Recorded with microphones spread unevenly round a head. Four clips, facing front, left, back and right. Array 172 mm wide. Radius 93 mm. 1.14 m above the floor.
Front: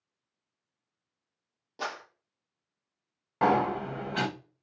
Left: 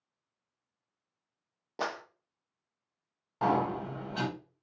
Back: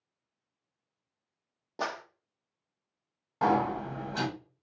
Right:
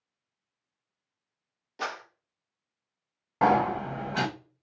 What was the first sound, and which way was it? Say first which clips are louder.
A clap: even, back 2 dB; 135° left.